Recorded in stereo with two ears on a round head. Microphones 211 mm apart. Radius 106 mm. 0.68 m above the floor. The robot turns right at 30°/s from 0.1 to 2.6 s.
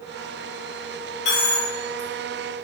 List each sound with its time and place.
1.2 s a dropped coin: 80° left, 1.6 m; by 2.6 s 40° left (ahead or behind), 1.6 m